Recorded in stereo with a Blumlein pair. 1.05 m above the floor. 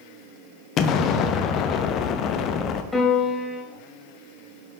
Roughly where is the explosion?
Ahead left.